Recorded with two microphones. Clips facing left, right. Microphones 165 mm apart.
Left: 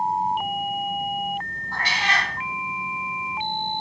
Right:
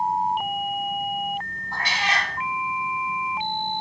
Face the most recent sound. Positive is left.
turn(degrees=-25)  # may be behind; listen again after turning